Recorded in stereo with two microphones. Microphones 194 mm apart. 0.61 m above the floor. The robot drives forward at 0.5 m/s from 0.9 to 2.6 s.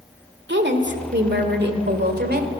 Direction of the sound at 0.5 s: 65° right (ahead or behind).